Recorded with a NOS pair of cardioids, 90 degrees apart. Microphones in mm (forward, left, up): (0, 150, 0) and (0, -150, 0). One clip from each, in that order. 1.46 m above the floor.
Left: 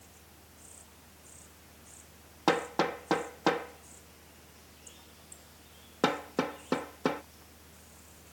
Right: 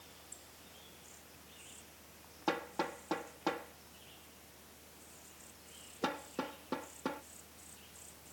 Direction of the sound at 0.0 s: 45° left.